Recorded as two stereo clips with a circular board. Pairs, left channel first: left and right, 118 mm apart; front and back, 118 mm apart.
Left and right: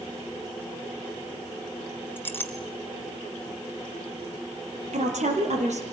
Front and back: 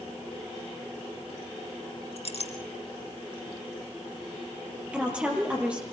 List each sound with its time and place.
2.2 s a clink: 20° left, 2 m
4.9 s a woman speaking: 100° right, 5 m